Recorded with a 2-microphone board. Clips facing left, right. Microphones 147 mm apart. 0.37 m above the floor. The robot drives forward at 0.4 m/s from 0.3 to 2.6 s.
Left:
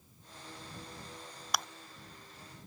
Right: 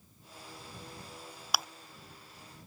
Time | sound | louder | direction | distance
1.5 | chewing | even | 5° right (ahead or behind) | ?